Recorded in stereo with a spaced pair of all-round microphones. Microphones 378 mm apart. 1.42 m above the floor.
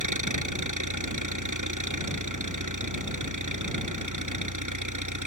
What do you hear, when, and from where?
0.0 s an engine running: 50° right (ahead or behind)